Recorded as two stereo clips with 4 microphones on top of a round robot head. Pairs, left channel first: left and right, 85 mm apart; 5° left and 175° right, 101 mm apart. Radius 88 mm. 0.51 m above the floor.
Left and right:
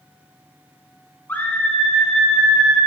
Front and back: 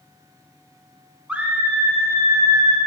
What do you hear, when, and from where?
1.3 s a scream: 120° left, 1.3 m; by 2.8 s 165° right, 1.4 m